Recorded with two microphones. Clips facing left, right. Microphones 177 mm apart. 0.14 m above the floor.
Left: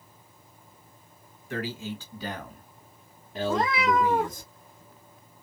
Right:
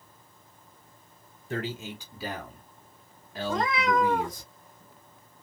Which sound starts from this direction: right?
A man speaking, at 1.5 s.